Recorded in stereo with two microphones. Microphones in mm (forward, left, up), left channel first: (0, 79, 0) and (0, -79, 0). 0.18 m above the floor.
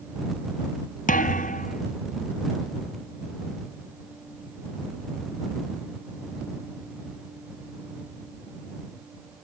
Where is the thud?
60° left (ahead or behind).